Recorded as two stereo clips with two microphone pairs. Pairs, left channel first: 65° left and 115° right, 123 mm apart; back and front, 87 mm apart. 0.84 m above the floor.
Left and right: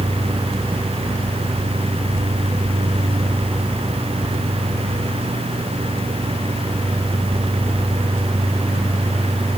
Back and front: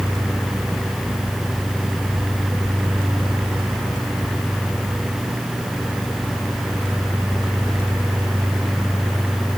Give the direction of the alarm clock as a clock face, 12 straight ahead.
No alarm clock in this recording.